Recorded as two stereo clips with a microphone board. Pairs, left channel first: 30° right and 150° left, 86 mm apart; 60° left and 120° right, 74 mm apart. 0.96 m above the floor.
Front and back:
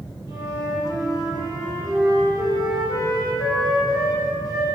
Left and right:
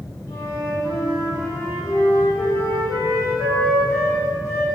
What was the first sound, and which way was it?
A flute, 110° left.